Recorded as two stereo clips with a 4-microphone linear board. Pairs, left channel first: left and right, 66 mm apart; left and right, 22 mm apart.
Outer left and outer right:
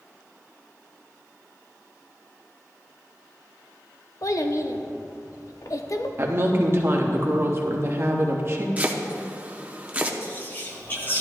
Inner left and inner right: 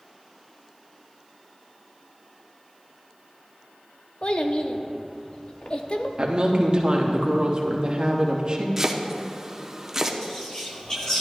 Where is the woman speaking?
40° right (ahead or behind), 1.2 m.